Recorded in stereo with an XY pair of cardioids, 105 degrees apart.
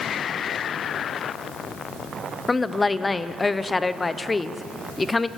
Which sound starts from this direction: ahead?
A woman speaking, at 2.5 s.